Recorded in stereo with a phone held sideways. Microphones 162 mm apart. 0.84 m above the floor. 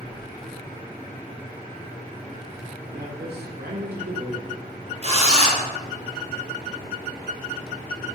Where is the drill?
45° right (ahead or behind), 5 m.